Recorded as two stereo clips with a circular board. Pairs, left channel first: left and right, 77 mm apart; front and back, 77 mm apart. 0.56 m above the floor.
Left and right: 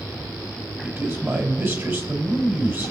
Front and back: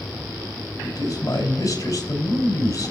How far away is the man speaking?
About 3.5 m.